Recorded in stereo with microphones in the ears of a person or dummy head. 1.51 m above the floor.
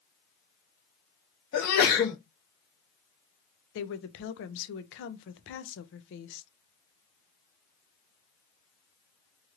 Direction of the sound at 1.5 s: 50° left (ahead or behind).